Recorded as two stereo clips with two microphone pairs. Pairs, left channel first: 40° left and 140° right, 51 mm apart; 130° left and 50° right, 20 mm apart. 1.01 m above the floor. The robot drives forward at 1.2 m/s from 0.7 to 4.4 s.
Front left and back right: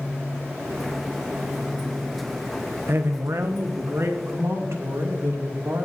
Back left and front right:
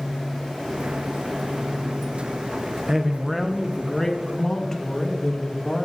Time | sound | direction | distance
2.9 | a man speaking | 105° right | 0.9 m